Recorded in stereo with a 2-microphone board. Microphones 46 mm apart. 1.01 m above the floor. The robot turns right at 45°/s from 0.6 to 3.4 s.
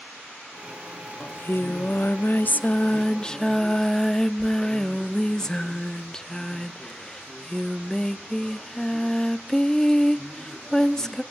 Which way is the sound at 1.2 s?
65° left.